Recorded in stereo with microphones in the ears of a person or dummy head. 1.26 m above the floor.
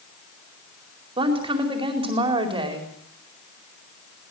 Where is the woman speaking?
30° right (ahead or behind), 4 m.